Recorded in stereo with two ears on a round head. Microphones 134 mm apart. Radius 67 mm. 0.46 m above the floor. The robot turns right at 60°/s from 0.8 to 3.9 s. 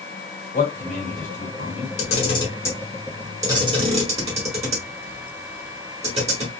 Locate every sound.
0.5 s a man speaking: 50° left (ahead or behind), 1.8 m; by 1.9 s 35° left (ahead or behind), 1.8 m
2.0 s a camera shutter: 50° left (ahead or behind), 1.4 m; by 6.5 s 40° right (ahead or behind), 1.4 m